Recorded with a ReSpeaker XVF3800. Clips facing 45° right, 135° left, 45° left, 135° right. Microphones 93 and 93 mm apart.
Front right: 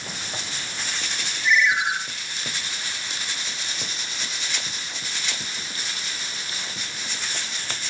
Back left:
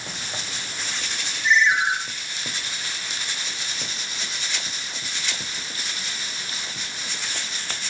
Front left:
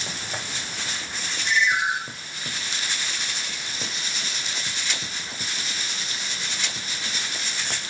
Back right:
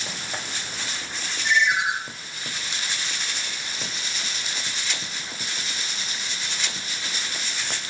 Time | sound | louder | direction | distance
1.4 | a ringtone | back left 2 dB, back right 1 dB | 165° right | 3 m